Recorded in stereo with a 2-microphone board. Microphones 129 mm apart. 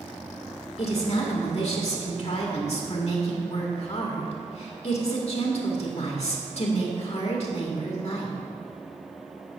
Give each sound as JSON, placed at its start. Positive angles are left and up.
{"t": 0.8, "sound": "a woman speaking", "side_deg": 55, "distance_m": 1.4}